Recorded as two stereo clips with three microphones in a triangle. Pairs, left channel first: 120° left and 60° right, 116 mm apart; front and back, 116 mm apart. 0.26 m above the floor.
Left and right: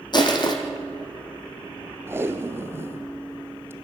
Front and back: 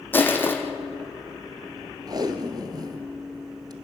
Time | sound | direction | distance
0.1 | crushing | 70° left | 2 m
2.1 | tape being pulled | 125° right | 1.3 m